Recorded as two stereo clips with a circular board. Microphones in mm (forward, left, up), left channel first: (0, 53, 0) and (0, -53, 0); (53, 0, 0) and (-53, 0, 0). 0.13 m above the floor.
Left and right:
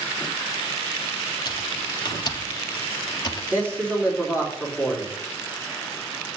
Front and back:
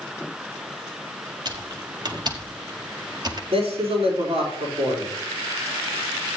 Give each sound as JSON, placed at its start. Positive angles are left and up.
{"t": 1.4, "sound": "typing on a keyboard", "azimuth_deg": 135, "distance_m": 1.3}
{"t": 3.5, "sound": "a man speaking", "azimuth_deg": -160, "distance_m": 5.0}